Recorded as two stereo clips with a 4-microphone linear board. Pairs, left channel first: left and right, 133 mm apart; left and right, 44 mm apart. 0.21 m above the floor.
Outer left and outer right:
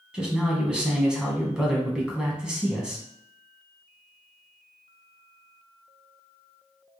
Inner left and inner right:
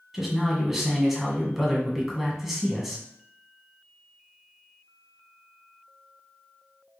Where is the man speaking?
5° right (ahead or behind), 1.4 m.